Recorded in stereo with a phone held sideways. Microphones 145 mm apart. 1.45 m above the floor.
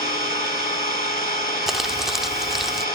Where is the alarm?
I don't hear an alarm.